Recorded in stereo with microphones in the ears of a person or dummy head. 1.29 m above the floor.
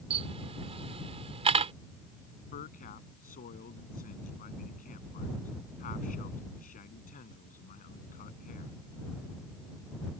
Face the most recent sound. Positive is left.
turn(degrees=45)  # may be behind; listen again after turning